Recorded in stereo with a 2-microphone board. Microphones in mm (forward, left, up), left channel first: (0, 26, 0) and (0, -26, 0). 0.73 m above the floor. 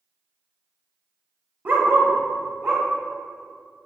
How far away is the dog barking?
About 0.9 m.